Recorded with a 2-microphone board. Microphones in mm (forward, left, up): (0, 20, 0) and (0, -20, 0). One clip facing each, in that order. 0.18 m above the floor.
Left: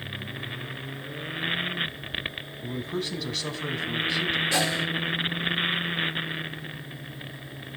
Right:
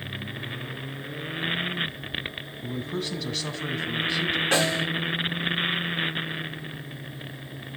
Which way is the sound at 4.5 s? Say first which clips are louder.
Right 2 dB; 65° right (ahead or behind).